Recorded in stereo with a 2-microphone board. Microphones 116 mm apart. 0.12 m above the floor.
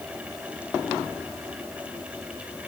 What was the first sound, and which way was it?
Only background noise.